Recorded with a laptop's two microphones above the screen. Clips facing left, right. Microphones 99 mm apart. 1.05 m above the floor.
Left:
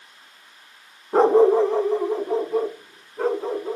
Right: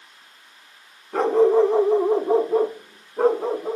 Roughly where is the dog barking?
Left.